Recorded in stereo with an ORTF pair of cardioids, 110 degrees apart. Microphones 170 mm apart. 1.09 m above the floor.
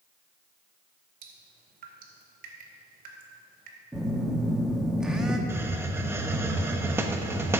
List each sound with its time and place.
1.2 s dripping: 60° right, 2.5 m
3.9 s a phone buzzing: 5° right, 1.3 m
5.5 s a hiss: 15° right, 1.0 m